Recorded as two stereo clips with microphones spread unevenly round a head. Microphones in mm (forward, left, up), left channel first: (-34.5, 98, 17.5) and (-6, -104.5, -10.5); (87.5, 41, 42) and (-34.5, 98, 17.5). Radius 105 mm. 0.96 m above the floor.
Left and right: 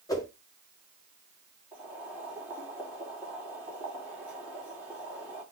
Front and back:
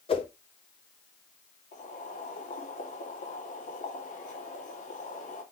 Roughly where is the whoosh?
Ahead.